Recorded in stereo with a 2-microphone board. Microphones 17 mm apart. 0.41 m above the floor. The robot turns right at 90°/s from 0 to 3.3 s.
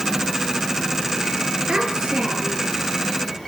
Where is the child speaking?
125° right, 5 m; by 2.7 s 35° right, 5 m.